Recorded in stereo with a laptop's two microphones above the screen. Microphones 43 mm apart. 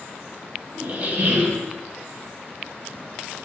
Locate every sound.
0.8 s a squeak: 35° right (ahead or behind), 0.8 m